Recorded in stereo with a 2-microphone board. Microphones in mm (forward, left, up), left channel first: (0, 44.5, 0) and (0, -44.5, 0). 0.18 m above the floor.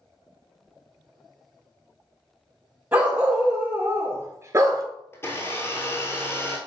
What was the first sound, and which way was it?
A dog barking, 20° right (ahead or behind).